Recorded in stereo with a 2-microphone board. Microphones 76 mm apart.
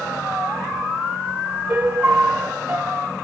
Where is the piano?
35° right (ahead or behind), 0.6 m.